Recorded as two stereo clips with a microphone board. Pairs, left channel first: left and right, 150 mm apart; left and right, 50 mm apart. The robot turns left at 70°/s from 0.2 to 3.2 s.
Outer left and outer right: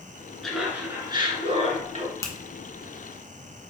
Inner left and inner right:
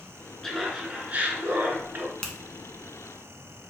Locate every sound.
0.4 s laughter: 5° left, 1.4 m; by 2.1 s 115° right, 1.4 m
2.2 s a finger snap: 20° left (ahead or behind), 0.8 m; by 2.3 s 25° left (ahead or behind), 0.8 m